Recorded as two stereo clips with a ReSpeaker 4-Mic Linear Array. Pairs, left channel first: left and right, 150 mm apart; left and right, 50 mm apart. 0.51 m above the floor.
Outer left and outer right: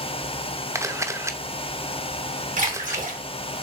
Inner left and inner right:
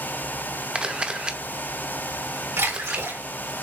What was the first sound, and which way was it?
A camera shutter, 20° right (ahead or behind).